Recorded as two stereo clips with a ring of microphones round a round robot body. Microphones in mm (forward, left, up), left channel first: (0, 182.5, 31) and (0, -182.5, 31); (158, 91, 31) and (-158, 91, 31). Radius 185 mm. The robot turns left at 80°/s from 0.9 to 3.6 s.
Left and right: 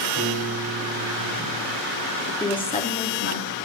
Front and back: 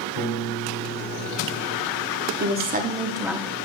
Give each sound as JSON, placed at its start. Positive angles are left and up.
{"t": 0.1, "sound": "a piano", "azimuth_deg": -15, "distance_m": 4.5}
{"t": 2.4, "sound": "a woman speaking", "azimuth_deg": 170, "distance_m": 0.9}